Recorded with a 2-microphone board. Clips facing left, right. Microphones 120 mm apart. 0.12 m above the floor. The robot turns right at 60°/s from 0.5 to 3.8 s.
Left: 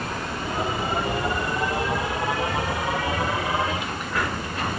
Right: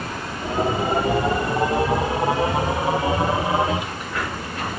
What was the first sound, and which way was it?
Only background noise.